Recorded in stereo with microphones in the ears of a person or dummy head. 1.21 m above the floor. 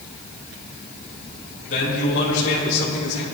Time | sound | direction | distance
1.7 | a man speaking | 60° left (ahead or behind) | 3.5 m